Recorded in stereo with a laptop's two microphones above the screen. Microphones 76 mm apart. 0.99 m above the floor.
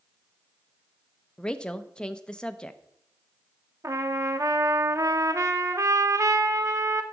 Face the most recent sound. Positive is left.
turn(degrees=-45)  # may be behind; listen again after turning